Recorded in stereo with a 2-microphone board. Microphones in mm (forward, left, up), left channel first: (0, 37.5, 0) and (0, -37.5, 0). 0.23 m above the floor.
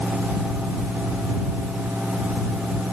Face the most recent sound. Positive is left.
No sound to turn to.